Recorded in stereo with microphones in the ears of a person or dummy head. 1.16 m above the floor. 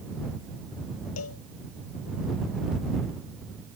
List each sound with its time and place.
1.2 s a cowbell: 90° left